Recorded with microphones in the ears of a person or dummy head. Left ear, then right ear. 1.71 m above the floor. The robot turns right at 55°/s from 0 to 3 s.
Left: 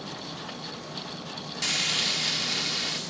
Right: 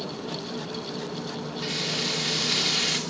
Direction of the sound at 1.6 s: 135° left.